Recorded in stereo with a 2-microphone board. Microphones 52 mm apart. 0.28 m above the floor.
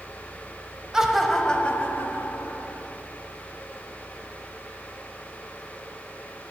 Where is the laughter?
15° right (ahead or behind), 1.1 m; by 2.8 s 55° left (ahead or behind), 2 m.